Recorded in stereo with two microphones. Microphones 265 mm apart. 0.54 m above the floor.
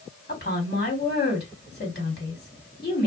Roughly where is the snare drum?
I don't hear a snare drum.